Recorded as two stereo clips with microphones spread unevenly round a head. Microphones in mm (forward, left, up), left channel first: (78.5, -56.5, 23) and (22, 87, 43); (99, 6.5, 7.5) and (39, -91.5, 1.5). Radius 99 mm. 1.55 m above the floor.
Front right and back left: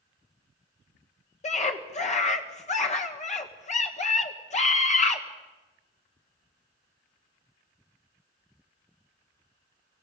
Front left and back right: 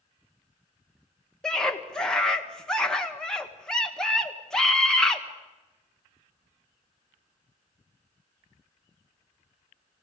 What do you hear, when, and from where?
1.4 s a scream: 25° right, 1.3 m